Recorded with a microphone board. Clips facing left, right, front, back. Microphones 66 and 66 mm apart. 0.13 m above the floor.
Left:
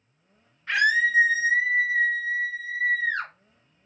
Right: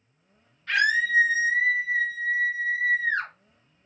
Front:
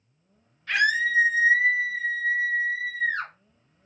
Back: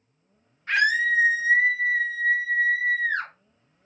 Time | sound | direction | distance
0.7 | a scream | 145° left | 1.5 m